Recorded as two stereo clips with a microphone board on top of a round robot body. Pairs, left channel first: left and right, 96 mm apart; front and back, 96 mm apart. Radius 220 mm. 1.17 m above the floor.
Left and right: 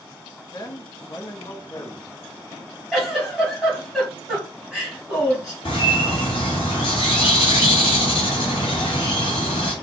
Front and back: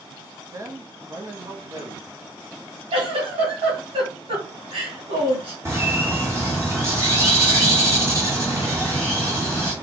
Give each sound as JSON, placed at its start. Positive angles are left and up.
{"t": 0.5, "sound": "a man speaking", "azimuth_deg": 130, "distance_m": 1.1}
{"t": 2.9, "sound": "a giggle", "azimuth_deg": -175, "distance_m": 2.0}
{"t": 5.7, "sound": "a bird", "azimuth_deg": 120, "distance_m": 0.9}